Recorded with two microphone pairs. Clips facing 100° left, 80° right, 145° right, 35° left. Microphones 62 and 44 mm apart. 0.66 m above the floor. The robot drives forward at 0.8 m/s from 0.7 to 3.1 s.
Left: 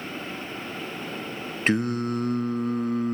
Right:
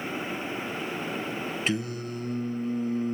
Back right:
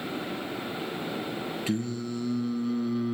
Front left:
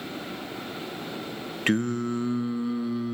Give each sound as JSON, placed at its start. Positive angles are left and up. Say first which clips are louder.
{"t": 1.7, "sound": "singing", "louder": "left 10 dB, front left 9 dB", "azimuth_deg": 60, "distance_m": 1.2}